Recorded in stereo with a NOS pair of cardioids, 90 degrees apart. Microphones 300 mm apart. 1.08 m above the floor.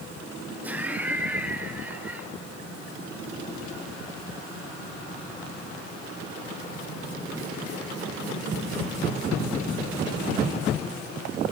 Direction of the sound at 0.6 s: 5° right.